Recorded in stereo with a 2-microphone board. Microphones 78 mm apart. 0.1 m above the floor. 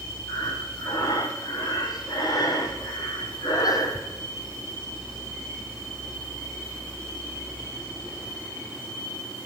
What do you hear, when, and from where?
0.3 s breathing: 55° left (ahead or behind), 3.5 m